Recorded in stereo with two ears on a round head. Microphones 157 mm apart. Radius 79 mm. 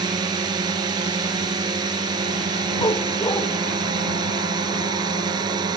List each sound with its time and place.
0.0 s a drone: 25° right (ahead or behind)
2.8 s a dog barking: 20° left (ahead or behind)